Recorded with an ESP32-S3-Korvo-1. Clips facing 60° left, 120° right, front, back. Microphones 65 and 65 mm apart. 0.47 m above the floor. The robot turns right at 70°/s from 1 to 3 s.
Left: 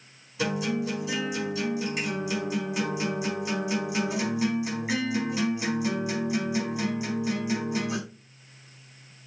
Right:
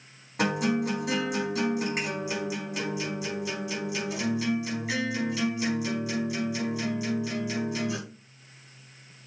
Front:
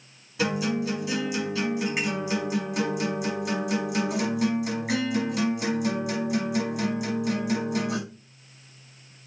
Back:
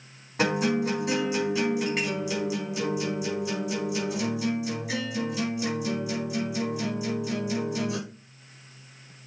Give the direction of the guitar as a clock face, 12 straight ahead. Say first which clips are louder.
Right 2 dB, back 2 dB; 5 o'clock.